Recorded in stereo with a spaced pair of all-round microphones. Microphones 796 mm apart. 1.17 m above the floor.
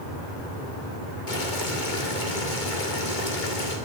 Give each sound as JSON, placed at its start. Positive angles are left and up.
{"t": 1.3, "sound": "boiling", "side_deg": 75, "distance_m": 2.0}